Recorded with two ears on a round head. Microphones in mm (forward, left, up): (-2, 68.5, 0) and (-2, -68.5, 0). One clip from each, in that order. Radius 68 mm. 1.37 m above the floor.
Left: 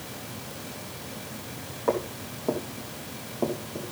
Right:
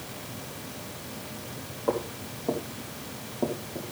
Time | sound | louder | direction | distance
1.9 | footsteps | left 2 dB | 55° left (ahead or behind) | 3.5 m